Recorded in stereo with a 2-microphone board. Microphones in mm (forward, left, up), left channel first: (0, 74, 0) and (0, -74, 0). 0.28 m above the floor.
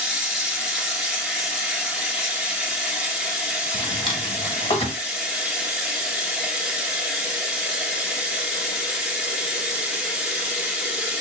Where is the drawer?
35° left (ahead or behind), 0.9 m.